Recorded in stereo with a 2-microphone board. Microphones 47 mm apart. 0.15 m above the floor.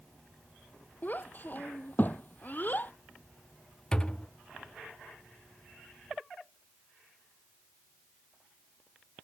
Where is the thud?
20° left (ahead or behind).